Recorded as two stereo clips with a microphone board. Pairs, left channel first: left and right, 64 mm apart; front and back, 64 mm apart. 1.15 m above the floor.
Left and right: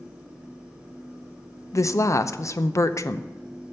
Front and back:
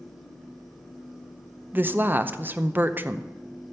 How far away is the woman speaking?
About 0.6 m.